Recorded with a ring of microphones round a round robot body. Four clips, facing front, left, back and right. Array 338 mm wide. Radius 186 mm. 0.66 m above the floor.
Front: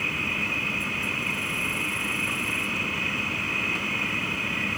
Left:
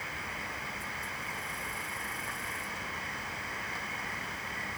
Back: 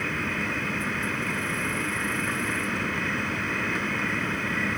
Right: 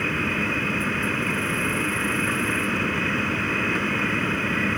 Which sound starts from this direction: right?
An insect, at 0.0 s.